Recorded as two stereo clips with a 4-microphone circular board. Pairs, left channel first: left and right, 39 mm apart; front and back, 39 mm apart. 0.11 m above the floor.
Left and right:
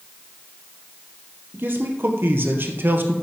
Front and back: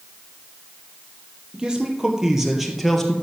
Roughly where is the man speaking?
Right.